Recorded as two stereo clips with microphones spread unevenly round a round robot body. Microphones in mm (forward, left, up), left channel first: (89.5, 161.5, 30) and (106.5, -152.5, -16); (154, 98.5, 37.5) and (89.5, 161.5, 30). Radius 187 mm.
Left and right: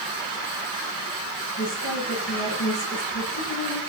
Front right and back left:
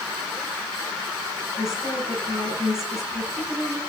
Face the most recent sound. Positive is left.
turn(degrees=50)